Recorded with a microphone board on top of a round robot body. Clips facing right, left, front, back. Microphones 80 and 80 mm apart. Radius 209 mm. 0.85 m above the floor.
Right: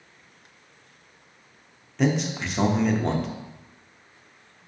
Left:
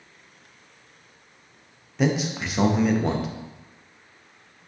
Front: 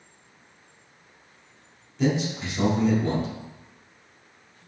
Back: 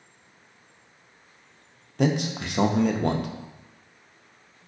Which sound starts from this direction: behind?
A man speaking, at 2.0 s.